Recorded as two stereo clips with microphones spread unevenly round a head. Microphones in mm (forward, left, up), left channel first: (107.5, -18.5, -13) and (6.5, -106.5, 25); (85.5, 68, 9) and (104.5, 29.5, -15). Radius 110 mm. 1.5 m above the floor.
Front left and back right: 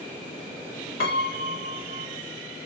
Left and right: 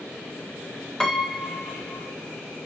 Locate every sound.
1.0 s a piano: 45° left, 1.5 m